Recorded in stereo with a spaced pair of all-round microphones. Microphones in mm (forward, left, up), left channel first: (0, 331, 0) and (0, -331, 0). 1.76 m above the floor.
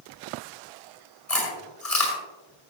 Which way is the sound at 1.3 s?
70° left (ahead or behind).